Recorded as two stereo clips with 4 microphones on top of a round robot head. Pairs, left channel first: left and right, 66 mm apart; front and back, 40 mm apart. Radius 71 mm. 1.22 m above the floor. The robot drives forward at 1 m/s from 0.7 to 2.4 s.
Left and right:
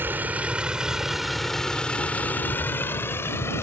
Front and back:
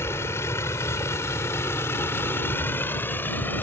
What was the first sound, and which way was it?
A vehicle, 30° right.